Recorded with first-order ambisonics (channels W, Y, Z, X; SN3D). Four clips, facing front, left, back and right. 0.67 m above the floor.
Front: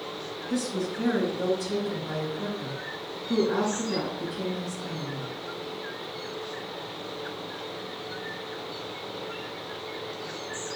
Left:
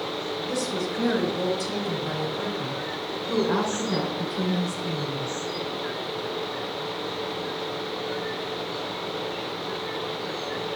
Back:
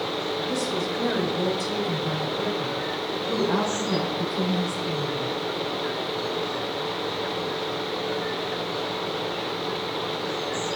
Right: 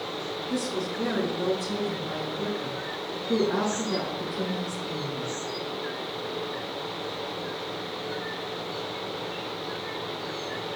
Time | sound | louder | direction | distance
0.5 | a woman speaking | left 1 dB, back 3 dB | 125° left | 3 m